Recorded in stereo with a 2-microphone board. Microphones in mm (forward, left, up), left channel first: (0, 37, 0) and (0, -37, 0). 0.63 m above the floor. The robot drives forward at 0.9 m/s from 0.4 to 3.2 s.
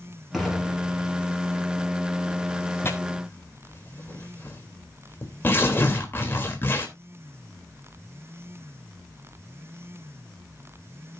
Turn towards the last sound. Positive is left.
turn(degrees=30)  # may be behind; listen again after turning